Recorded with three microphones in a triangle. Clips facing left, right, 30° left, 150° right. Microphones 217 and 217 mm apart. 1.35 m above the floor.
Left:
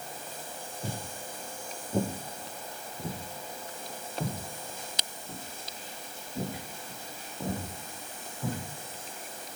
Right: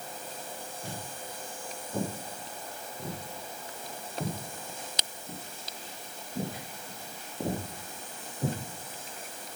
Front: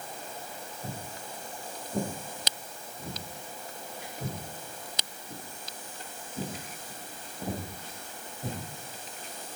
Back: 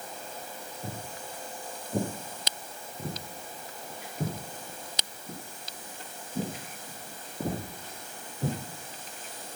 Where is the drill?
No drill in this recording.